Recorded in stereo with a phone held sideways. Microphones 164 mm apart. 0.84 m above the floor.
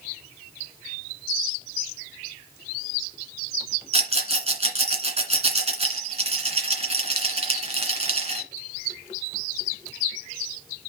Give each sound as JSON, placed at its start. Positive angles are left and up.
{"t": 3.9, "sound": "a rattle", "side_deg": -40, "distance_m": 2.0}